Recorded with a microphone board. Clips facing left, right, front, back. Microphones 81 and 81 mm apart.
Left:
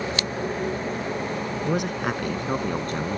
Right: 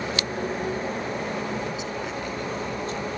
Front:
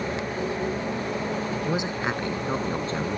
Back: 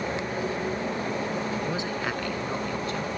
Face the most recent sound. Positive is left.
turn(degrees=55)